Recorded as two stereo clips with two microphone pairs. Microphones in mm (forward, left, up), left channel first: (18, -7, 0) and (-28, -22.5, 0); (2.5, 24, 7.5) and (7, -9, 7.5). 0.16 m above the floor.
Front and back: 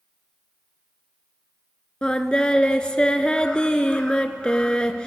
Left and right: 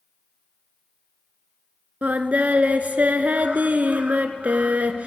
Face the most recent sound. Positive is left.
turn(degrees=-50)